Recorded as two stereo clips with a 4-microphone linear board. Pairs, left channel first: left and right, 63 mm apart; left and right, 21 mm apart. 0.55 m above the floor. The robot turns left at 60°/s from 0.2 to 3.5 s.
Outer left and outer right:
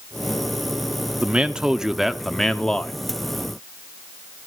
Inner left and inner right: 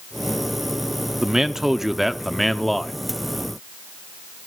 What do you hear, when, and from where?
1.2 s a man speaking: 20° right (ahead or behind), 0.7 m; by 2.9 s 15° left (ahead or behind), 0.7 m